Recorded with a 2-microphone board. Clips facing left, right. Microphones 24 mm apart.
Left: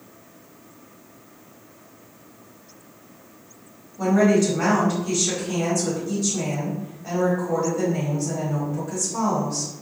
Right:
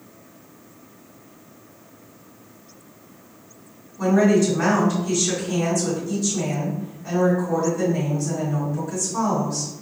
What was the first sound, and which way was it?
A woman speaking, 25° left (ahead or behind).